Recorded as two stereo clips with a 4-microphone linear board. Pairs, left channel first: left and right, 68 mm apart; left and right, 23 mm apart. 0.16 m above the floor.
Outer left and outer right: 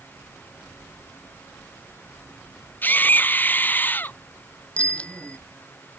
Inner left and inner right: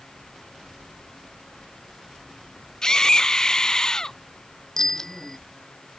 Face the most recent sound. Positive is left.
turn(degrees=20)  # may be behind; listen again after turning